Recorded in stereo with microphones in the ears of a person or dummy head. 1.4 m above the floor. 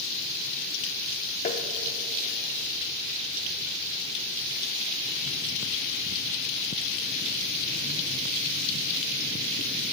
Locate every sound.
1.4 s tapping: 35° left (ahead or behind), 0.9 m